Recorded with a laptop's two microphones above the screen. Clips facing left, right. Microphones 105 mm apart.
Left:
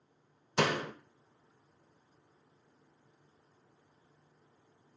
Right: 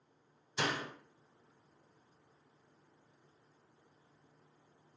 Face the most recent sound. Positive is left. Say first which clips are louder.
# left 6 dB
turn(degrees=70)  # may be behind; listen again after turning